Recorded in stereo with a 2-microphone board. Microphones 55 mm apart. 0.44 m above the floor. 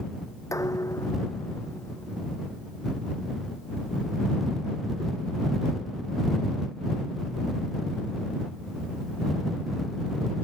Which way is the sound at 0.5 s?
75° left (ahead or behind).